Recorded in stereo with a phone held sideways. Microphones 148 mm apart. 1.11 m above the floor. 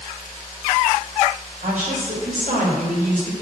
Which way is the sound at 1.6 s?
60° right (ahead or behind).